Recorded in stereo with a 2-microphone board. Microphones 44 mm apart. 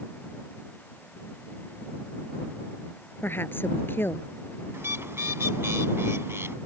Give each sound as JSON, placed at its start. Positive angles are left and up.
{"t": 3.2, "sound": "a woman speaking", "side_deg": 50}
{"t": 4.7, "sound": "a bird", "side_deg": -70}